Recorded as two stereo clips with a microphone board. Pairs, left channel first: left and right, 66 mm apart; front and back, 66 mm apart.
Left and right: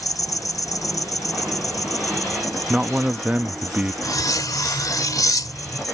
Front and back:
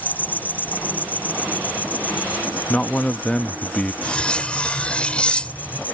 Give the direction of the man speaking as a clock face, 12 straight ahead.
2 o'clock.